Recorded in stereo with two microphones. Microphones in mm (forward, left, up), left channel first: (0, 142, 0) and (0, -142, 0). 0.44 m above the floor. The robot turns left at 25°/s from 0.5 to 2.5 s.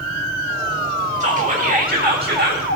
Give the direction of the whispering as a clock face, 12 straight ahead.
1 o'clock.